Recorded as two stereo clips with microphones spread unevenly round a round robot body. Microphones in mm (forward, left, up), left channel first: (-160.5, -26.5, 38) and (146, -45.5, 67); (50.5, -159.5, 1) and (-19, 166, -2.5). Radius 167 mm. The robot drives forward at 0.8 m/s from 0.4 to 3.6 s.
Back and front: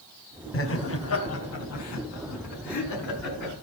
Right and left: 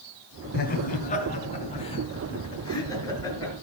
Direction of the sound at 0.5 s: 140° right.